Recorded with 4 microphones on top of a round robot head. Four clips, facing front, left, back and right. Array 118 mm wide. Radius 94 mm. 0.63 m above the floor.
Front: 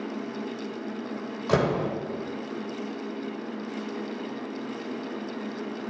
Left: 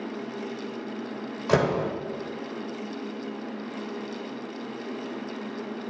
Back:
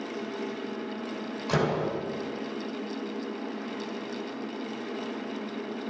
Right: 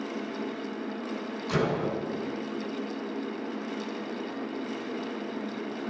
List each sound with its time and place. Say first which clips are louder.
1.5 s a door slam: left 5 dB, front 3 dB; 50° left, 2 m